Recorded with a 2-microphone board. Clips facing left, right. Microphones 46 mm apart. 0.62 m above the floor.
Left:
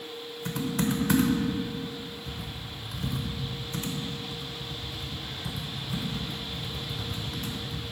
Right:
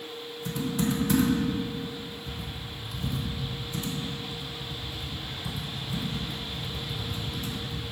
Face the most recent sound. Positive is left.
turn(degrees=60)  # may be behind; listen again after turning